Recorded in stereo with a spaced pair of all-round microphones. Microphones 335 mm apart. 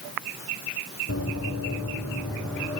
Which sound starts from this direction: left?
Running footsteps, at 1.1 s.